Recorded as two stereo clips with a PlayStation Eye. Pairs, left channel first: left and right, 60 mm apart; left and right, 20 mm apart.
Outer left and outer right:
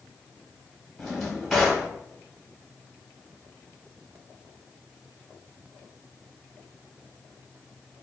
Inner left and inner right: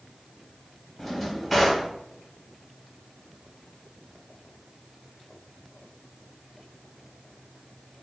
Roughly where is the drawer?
Centre.